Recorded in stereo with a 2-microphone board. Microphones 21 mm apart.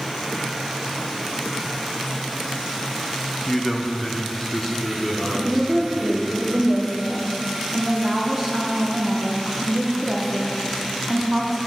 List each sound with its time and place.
3.5 s a man speaking: 15° left (ahead or behind), 0.6 m
5.3 s a woman speaking: 15° right (ahead or behind), 0.8 m